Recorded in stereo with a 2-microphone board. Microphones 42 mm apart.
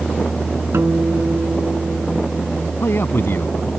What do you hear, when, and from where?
0.7 s a guitar: 75° right (ahead or behind)
2.8 s a man speaking: 60° left (ahead or behind)